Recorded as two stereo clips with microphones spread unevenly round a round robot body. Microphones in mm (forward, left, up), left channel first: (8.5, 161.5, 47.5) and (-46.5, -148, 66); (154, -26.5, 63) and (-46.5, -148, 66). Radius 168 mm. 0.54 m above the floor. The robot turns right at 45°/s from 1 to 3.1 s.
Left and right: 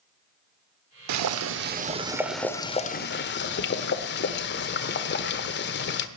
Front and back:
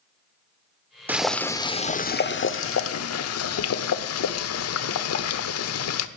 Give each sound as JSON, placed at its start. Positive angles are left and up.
{"t": 1.1, "sound": "boiling", "azimuth_deg": -65, "distance_m": 1.0}